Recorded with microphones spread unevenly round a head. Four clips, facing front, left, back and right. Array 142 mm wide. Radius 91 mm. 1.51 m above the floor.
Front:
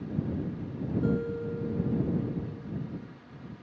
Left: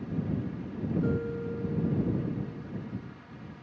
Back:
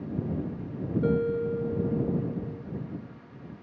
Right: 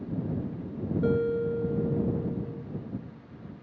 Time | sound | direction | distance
1.0 | a guitar | 130° right | ?